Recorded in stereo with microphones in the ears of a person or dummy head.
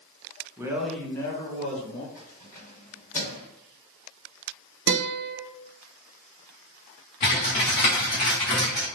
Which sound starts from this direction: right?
A guitar, at 4.9 s.